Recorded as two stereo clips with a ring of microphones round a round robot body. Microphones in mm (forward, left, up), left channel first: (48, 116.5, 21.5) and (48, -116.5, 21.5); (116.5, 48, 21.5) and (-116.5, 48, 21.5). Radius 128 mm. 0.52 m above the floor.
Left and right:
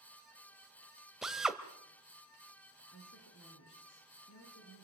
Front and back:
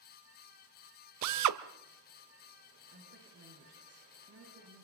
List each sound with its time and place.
1.2 s a drill: straight behind, 1.3 m
2.9 s a woman speaking: 140° left, 9.5 m